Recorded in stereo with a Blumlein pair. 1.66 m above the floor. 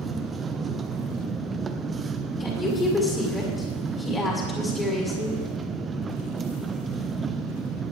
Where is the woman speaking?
15° left, 5.5 m.